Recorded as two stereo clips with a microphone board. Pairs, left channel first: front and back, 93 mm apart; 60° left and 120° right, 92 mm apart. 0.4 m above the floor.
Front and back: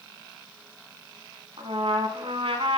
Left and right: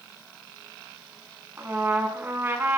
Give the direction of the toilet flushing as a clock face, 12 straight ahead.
I don't hear a toilet flushing.